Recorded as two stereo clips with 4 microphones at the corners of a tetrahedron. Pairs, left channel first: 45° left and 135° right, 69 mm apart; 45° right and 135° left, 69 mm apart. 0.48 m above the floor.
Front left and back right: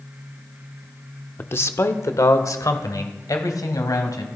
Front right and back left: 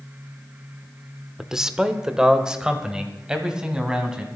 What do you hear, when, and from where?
1.4 s a man speaking: 60° left, 0.8 m; by 4.3 s 55° left, 3 m